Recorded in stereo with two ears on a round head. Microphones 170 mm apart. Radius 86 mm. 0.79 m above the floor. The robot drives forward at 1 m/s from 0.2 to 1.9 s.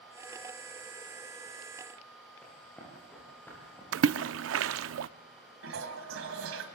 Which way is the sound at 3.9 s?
80° right.